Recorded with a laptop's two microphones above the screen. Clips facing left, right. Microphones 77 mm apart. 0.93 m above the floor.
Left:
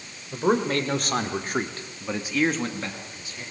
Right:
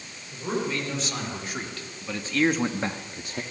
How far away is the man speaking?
About 3 m.